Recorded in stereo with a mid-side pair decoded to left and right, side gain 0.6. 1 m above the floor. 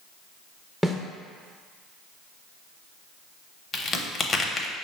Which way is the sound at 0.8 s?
Straight ahead.